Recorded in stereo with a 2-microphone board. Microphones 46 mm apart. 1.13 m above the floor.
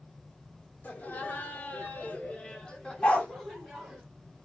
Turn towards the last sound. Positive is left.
turn(degrees=30)  # may be behind; listen again after turning